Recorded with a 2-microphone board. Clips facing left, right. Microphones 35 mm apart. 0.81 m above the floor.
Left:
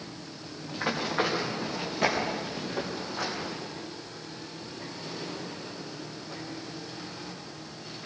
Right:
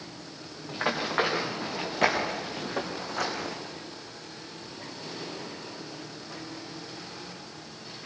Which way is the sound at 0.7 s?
40° right (ahead or behind).